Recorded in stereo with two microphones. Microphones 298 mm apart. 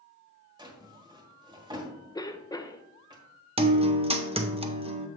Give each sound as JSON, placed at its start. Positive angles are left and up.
{"t": 0.6, "sound": "a drawer", "side_deg": -15, "distance_m": 1.6}
{"t": 2.1, "sound": "a cough", "side_deg": 15, "distance_m": 0.7}
{"t": 3.6, "sound": "a guitar", "side_deg": -20, "distance_m": 0.7}